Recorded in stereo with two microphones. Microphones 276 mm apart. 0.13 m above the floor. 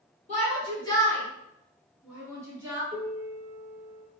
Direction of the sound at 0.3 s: 25° left (ahead or behind).